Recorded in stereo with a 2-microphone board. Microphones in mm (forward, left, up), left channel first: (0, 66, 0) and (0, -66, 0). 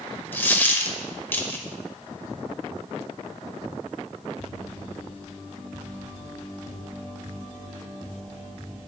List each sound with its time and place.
0.3 s a dropped coin: 15° left (ahead or behind), 0.8 m